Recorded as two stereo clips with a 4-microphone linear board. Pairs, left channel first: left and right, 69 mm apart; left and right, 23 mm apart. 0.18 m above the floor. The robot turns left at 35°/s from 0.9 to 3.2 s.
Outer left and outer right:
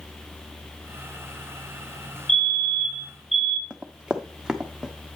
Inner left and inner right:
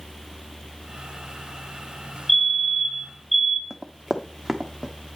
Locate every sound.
2.3 s a fire alarm: 30° left, 2.5 m; by 3.6 s straight ahead, 2.5 m
3.7 s running footsteps: 15° right (ahead or behind), 0.8 m; by 4.9 s 5° right (ahead or behind), 1.4 m